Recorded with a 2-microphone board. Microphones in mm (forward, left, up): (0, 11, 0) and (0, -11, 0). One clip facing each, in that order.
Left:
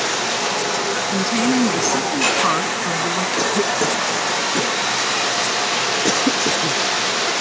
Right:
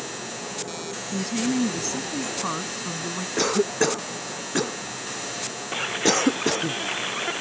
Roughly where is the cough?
Centre.